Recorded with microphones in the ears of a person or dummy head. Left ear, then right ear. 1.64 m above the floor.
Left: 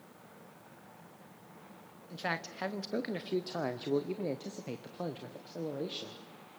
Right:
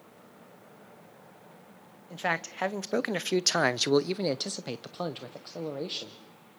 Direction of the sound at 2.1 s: 25° right (ahead or behind).